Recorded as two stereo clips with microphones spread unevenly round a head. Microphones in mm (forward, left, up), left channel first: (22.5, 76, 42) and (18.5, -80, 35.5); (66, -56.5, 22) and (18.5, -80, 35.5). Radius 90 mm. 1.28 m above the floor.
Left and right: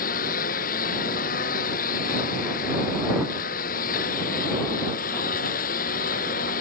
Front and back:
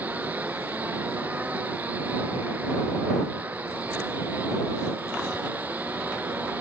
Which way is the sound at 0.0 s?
130° left.